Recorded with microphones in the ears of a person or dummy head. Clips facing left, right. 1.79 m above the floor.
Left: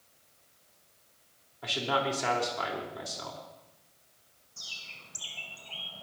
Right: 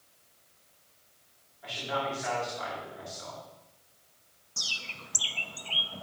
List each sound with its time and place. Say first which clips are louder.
1.6 s a man speaking: left 3 dB; 80° left, 4 m
4.6 s a bird: right 8 dB; 70° right (ahead or behind), 0.8 m